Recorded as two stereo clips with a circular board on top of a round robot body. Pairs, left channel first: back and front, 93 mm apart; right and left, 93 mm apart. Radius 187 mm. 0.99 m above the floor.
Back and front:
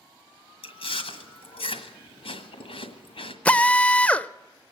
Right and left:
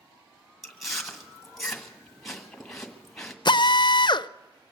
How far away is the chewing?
About 1.6 m.